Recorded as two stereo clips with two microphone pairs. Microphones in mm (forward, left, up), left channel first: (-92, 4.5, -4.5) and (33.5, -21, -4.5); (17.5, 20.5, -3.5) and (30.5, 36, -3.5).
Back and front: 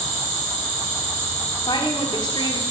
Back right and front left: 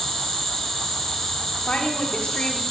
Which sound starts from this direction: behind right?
A woman speaking, at 1.7 s.